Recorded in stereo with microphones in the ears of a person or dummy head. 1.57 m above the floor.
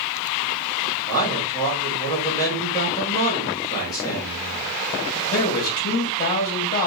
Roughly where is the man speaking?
Centre.